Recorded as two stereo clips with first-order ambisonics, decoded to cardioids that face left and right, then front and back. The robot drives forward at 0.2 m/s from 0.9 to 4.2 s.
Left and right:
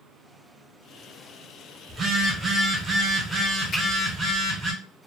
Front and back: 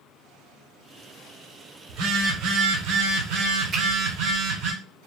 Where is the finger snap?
125° left, 1.2 m.